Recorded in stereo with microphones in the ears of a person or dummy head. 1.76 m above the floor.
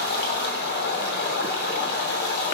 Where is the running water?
60° left (ahead or behind), 3 m.